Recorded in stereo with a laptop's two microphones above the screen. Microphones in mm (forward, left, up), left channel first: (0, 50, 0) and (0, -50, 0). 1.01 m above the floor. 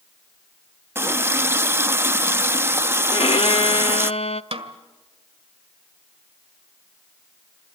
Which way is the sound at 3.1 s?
80° left.